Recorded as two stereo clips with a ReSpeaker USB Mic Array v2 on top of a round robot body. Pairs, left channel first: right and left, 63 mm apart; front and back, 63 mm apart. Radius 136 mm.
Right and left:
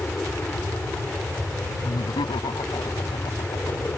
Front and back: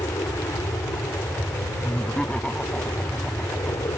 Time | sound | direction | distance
0.0 | an aircraft | 25° right | ?
1.8 | laughter | 80° right | ?